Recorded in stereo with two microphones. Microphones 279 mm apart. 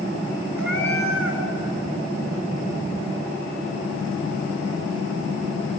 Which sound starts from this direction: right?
A cat meowing, at 0.6 s.